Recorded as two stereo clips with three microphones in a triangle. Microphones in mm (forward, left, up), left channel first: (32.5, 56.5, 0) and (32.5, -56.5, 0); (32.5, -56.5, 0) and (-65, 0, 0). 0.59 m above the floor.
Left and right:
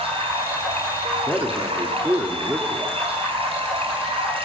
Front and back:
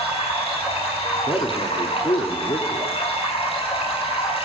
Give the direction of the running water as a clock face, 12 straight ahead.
2 o'clock.